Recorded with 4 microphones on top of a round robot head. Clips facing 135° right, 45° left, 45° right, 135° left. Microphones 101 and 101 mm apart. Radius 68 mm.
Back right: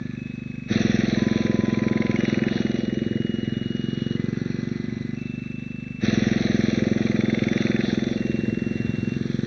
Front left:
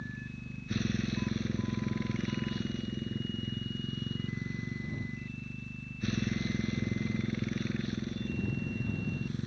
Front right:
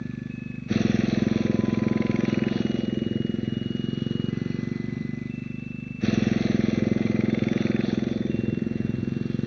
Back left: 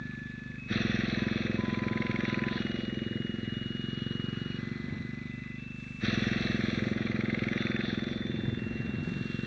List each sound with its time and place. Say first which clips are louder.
0.0 s a motorcycle: back right 11 dB, front right 8 dB; 105° right